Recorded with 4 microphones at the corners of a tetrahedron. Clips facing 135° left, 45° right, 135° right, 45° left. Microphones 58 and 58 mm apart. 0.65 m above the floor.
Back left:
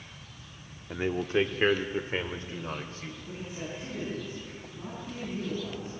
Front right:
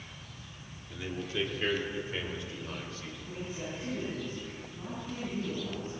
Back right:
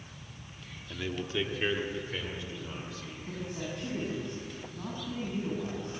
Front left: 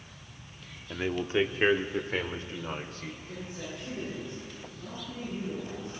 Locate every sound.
0.9 s a man speaking: 105° left, 1.0 m; by 3.1 s 85° left, 2 m
3.2 s a man speaking: 145° right, 7 m